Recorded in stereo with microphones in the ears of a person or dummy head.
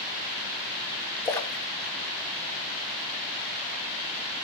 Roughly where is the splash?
Centre.